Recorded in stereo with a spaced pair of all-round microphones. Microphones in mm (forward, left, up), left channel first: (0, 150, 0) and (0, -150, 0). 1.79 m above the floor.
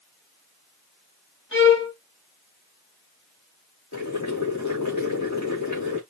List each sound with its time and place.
1.5 s a violin: 40° left (ahead or behind), 2.5 m
3.9 s boiling: 70° left (ahead or behind), 3 m